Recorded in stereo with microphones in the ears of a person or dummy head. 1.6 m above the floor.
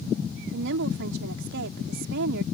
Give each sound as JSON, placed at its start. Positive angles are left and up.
{"t": 0.5, "sound": "a woman speaking", "side_deg": -65}